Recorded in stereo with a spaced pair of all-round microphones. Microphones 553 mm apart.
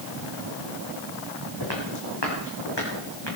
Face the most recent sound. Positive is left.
turn(degrees=50)  # may be behind; listen again after turning